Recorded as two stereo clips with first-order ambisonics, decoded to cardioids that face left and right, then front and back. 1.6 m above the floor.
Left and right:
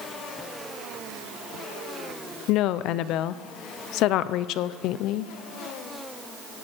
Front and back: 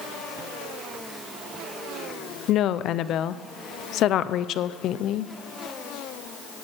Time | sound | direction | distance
2.5 | a woman speaking | 50° left | 0.6 m